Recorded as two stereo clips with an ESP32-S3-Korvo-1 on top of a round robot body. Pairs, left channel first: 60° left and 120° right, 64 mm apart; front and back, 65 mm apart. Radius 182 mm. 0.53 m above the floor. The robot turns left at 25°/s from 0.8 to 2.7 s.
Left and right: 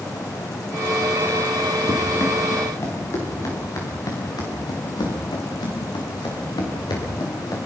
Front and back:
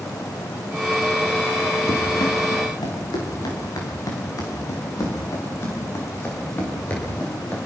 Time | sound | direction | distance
1.9 | running footsteps | 20° left | 6.5 m